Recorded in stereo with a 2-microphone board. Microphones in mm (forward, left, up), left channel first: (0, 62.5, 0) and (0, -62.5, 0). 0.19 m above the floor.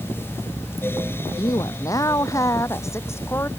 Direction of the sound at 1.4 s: 30° left (ahead or behind).